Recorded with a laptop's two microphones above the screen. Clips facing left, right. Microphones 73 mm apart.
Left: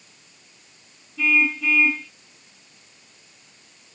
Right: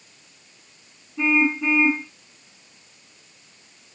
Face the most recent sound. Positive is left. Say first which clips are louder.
# right 1 dB
turn(degrees=-30)  # may be behind; listen again after turning